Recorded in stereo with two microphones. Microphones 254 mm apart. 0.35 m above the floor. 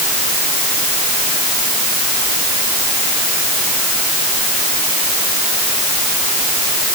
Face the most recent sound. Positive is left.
No sound to turn to.